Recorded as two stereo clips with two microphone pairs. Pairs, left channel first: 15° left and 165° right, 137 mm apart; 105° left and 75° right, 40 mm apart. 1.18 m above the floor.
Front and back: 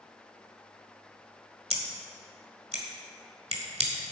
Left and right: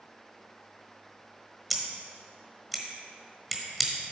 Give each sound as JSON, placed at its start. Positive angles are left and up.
{"t": 1.7, "sound": "scissors", "azimuth_deg": -165, "distance_m": 1.4}